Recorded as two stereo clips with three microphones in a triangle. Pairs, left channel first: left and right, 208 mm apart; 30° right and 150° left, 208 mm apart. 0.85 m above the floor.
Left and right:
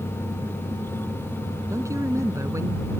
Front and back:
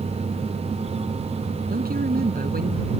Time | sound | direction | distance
1.7 | a man speaking | 165° right | ?